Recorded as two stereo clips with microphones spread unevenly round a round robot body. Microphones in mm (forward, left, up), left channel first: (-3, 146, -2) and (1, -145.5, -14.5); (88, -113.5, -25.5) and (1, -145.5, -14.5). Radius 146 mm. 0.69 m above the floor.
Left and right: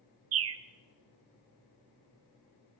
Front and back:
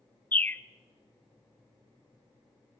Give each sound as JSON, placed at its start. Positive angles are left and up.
{"t": 0.3, "sound": "a bird", "azimuth_deg": -50, "distance_m": 0.6}